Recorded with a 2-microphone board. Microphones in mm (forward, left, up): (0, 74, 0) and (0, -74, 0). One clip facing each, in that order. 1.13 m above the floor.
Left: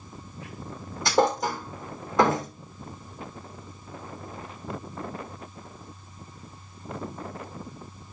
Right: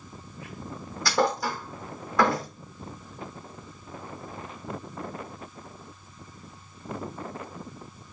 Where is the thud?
20° left (ahead or behind), 3 m.